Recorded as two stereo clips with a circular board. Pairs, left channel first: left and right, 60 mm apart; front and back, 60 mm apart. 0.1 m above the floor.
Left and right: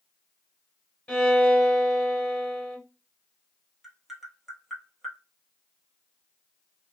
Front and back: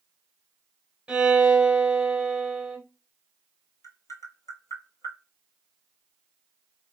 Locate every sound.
1.1 s a violin: 130° left, 1.1 m
3.8 s tapping: 5° right, 0.6 m